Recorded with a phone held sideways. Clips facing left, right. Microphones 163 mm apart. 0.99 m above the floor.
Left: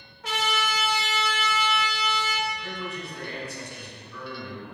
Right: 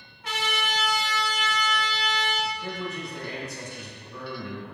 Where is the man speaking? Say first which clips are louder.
Right 2 dB; 35° right (ahead or behind), 2 m.